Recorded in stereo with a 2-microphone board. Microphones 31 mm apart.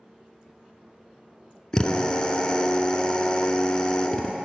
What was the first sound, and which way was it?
A drill, 25° left (ahead or behind).